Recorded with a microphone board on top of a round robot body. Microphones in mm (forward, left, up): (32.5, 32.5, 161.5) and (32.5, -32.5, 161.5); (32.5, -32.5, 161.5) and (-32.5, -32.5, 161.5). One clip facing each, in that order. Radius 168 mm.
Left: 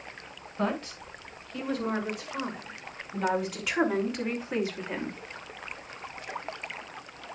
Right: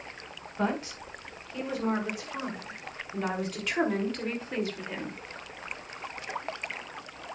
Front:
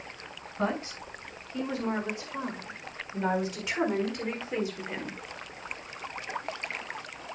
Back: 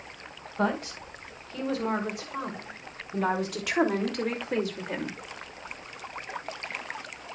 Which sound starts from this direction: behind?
A woman speaking, at 0.6 s.